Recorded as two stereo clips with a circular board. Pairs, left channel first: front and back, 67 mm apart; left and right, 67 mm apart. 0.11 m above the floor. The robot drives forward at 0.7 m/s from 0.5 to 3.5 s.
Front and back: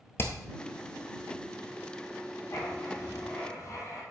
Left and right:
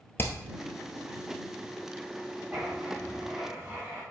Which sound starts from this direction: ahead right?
Writing, at 2.5 s.